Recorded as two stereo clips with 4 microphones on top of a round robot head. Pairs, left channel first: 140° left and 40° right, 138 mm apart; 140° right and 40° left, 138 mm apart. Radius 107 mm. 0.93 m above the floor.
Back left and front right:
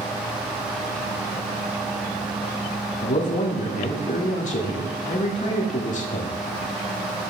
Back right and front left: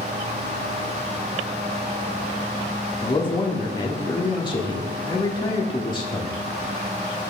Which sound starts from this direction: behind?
A man speaking, at 3.0 s.